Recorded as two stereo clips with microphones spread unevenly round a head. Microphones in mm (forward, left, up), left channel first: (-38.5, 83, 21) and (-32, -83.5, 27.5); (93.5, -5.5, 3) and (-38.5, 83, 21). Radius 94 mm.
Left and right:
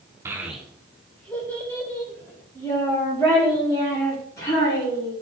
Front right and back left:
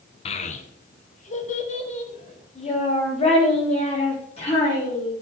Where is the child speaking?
30° right, 0.6 m; by 5.1 s 20° left, 4.5 m.